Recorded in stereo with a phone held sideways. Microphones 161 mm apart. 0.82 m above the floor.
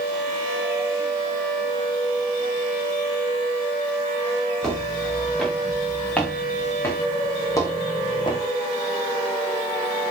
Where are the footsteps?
Centre (ahead or behind), 5.5 m; by 8.4 s 35° left (ahead or behind), 2.5 m.